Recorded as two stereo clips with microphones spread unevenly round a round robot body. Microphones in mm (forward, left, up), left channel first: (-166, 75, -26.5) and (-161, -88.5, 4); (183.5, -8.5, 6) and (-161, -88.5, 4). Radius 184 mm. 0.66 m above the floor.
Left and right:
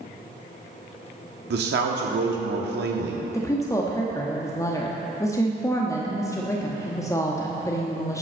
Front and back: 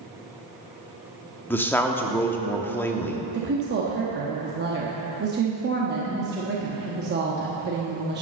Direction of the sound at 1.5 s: 70° right.